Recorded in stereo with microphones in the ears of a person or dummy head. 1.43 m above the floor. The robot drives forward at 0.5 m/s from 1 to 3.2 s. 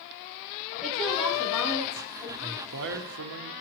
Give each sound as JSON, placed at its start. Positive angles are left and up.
{"t": 0.8, "sound": "a woman speaking", "side_deg": 5, "distance_m": 3.0}
{"t": 2.4, "sound": "a man speaking", "side_deg": -60, "distance_m": 1.3}